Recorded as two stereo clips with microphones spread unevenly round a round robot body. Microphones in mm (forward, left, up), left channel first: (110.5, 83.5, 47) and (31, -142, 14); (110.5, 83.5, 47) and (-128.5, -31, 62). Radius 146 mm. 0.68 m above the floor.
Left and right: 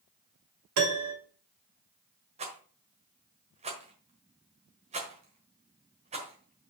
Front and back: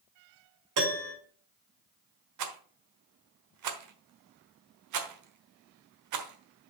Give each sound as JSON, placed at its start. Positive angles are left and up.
{"t": 0.8, "sound": "a piano", "azimuth_deg": -125, "distance_m": 3.0}
{"t": 2.4, "sound": "a rattle", "azimuth_deg": 180, "distance_m": 1.2}